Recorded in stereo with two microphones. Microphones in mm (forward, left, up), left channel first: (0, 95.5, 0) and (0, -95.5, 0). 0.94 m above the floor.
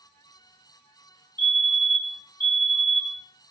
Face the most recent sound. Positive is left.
turn(degrees=-25)  # may be behind; listen again after turning